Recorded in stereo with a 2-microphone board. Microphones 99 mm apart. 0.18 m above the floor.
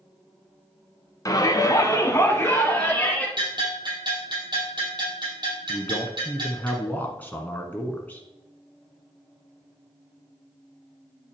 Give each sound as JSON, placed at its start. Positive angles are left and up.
{"t": 1.2, "sound": "a shout", "side_deg": 40, "distance_m": 1.4}
{"t": 3.4, "sound": "a bell", "side_deg": -50, "distance_m": 4.5}
{"t": 5.7, "sound": "a man speaking", "side_deg": 15, "distance_m": 1.4}